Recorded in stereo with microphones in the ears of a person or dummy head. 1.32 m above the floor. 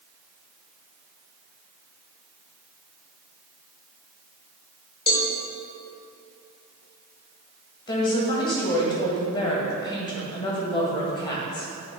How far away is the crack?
No crack in this recording.